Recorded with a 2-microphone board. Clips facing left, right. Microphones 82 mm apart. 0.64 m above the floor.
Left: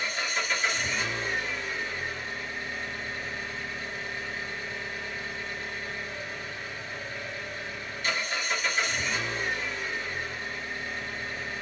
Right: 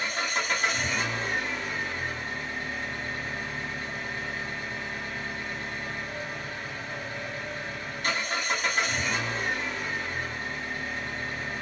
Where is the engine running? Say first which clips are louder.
Right 2 dB; 50° right (ahead or behind), 1.5 m.